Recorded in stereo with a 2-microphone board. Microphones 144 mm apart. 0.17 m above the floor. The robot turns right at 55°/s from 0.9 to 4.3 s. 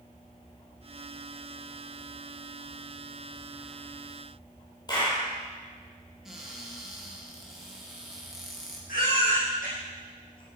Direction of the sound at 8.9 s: 75° left (ahead or behind).